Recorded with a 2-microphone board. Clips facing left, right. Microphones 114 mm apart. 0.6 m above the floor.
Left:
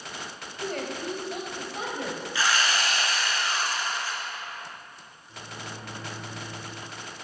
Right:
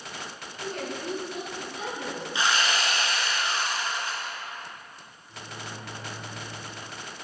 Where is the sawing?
20° right (ahead or behind), 2 m.